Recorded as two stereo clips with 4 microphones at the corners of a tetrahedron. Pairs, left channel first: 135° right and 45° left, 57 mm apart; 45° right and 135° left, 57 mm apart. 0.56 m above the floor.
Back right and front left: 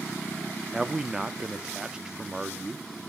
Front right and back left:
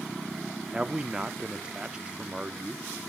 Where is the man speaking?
100° left, 0.6 m.